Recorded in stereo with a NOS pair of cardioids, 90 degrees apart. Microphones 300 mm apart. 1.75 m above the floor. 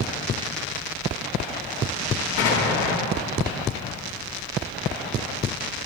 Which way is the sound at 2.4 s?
50° left.